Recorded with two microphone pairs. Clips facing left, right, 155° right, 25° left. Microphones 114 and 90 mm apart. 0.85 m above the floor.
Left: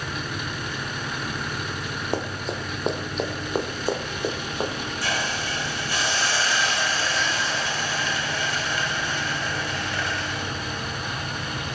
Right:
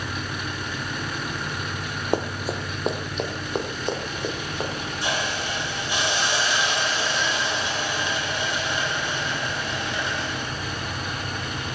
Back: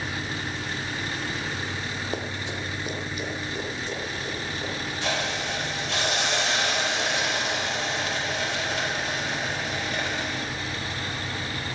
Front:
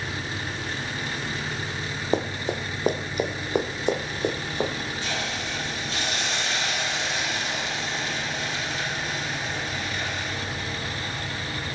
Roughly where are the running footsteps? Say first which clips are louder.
Right 4 dB, front 10 dB; ahead.